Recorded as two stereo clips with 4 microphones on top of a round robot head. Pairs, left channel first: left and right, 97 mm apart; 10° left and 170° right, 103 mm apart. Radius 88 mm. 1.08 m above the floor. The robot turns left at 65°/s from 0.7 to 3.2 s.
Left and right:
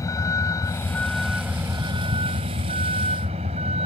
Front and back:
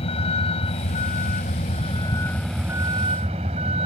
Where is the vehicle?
35° left; by 3.9 s 130° right.